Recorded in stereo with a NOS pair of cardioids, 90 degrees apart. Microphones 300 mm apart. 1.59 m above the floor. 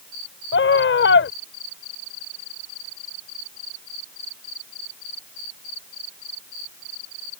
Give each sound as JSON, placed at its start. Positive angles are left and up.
{"t": 0.5, "sound": "a scream", "azimuth_deg": 40}